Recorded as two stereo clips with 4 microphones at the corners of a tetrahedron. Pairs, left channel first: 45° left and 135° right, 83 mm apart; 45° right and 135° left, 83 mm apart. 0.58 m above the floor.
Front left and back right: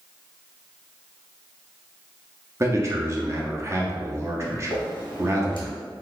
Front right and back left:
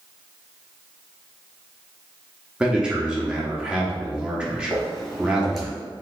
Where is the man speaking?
155° right, 0.8 m.